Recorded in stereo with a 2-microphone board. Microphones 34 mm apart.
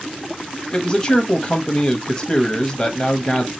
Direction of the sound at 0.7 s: 25° left (ahead or behind).